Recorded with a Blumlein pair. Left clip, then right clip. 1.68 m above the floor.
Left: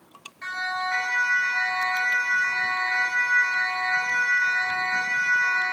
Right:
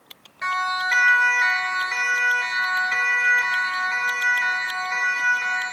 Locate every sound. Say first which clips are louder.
0.4 s a siren: right 5 dB; 25° right, 2.5 m; by 5.6 s 80° right, 6.5 m